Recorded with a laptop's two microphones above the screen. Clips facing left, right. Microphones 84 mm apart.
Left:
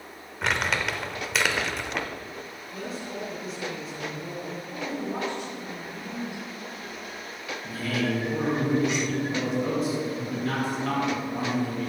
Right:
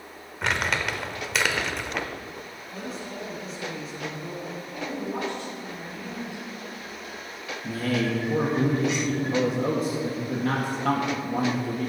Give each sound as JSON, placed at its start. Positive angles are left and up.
{"t": 0.4, "sound": "crumpling", "side_deg": 0, "distance_m": 0.8}
{"t": 2.7, "sound": "a man speaking", "side_deg": 0, "distance_m": 3.0}
{"t": 4.7, "sound": "a woman speaking", "side_deg": 20, "distance_m": 3.5}
{"t": 7.6, "sound": "a man speaking", "side_deg": -70, "distance_m": 1.7}